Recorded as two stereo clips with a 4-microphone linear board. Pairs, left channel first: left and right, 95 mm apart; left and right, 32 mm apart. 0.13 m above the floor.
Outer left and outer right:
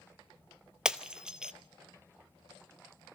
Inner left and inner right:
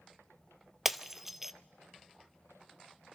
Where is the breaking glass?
10° right (ahead or behind), 0.7 m.